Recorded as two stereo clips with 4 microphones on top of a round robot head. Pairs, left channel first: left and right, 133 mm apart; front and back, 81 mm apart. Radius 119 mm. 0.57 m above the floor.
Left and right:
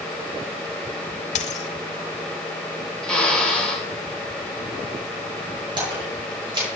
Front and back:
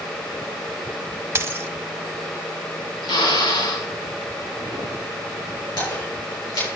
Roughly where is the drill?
Ahead.